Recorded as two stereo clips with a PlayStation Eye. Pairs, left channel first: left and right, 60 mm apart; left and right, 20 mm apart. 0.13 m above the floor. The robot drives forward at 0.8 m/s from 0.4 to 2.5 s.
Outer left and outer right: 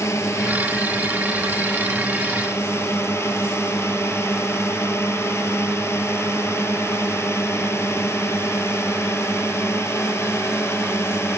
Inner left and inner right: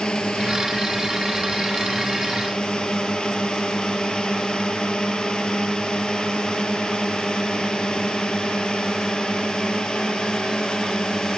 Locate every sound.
0.0 s a drone: 50° left (ahead or behind); by 11.4 s 45° left (ahead or behind)